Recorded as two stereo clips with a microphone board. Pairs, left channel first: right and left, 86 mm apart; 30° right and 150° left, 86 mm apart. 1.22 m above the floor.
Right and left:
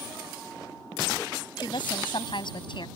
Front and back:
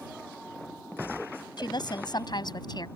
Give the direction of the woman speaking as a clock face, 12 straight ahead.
2 o'clock.